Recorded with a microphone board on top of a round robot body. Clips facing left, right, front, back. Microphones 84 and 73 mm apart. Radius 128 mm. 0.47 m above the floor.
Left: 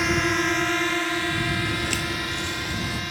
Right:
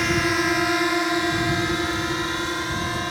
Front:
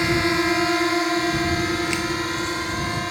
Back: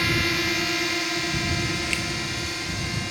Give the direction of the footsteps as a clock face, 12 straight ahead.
9 o'clock.